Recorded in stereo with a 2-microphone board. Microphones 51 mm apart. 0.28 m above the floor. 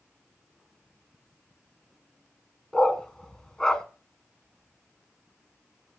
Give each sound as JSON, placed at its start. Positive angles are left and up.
{"t": 2.7, "sound": "a dog barking", "side_deg": 15, "distance_m": 1.0}